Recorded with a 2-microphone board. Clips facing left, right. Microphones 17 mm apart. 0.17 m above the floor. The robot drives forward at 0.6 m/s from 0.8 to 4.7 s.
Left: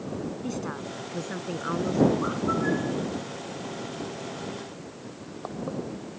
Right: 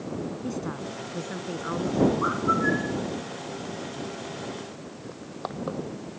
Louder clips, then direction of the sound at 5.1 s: Right 3 dB; 35° right (ahead or behind).